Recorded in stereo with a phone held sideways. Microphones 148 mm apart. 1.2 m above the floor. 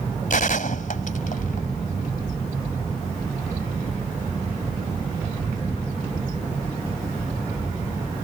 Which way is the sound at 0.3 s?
65° left (ahead or behind).